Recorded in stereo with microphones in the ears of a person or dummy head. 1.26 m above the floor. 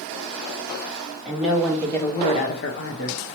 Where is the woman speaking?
10° right (ahead or behind), 1.4 m; by 3.2 s 65° left (ahead or behind), 1.1 m.